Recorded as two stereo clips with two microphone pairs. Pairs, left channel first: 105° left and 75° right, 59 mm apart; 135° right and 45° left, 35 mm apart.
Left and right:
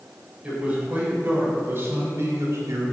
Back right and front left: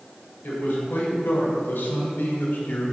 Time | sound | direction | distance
0.4 | a man speaking | 140° right | 3 m